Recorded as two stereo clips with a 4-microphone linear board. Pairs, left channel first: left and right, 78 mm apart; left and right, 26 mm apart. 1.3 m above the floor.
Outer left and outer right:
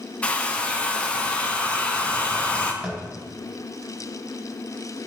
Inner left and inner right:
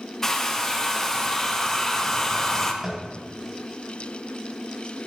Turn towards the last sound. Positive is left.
turn(degrees=-15)  # may be behind; listen again after turning